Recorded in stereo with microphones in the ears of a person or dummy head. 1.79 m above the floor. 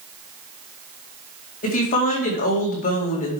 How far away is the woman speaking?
About 2 m.